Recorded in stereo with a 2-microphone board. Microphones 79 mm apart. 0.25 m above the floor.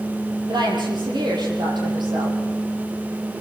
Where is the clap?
I don't hear a clap.